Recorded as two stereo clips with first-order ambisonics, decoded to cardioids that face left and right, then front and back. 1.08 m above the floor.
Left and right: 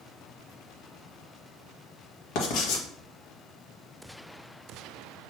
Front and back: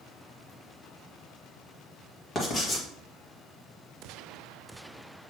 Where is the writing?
65° left, 1.6 m.